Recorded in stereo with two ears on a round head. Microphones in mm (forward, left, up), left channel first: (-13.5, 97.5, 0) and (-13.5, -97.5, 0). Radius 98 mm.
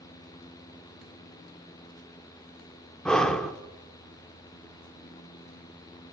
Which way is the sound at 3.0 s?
5° left (ahead or behind).